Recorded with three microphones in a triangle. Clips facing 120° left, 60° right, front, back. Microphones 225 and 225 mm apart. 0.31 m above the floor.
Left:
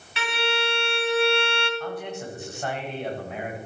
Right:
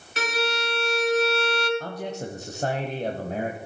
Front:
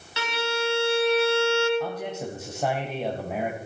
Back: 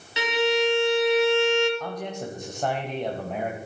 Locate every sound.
0.2 s a violin: 110° right, 1.2 m
1.8 s a man speaking: 80° right, 1.2 m